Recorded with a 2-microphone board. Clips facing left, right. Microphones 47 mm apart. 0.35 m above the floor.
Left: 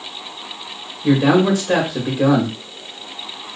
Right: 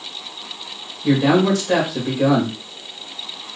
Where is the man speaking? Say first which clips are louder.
Left 1 dB; 20° left (ahead or behind), 1.1 m.